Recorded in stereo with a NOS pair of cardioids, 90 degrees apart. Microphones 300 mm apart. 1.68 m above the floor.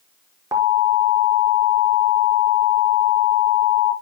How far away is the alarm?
About 5.5 m.